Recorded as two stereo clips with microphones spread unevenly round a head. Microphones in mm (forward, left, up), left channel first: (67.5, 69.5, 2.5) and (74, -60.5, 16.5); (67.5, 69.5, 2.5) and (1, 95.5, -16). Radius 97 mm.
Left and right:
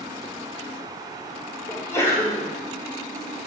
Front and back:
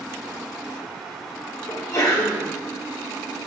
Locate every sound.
1.7 s a sneeze: 25° left, 4 m